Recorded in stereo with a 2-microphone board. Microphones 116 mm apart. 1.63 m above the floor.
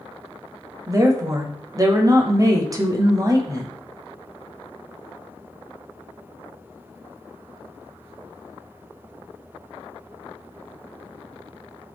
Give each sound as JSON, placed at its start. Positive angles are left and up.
{"t": 0.9, "sound": "a woman speaking", "side_deg": -30, "distance_m": 0.6}